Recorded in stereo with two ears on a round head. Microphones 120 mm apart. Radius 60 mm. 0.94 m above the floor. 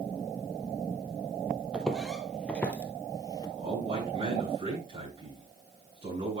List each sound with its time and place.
1.7 s footsteps: 5° right (ahead or behind), 1.3 m; by 3.5 s 30° left (ahead or behind), 1.0 m
3.6 s a man speaking: 45° right (ahead or behind), 7 m